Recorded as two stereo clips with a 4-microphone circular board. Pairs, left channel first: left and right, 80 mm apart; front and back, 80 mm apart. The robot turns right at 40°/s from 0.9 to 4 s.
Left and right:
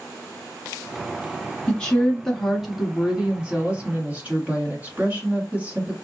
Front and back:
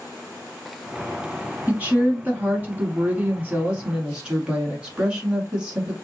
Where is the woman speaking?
145° left, 1.2 m; by 5.9 s 125° right, 1.2 m.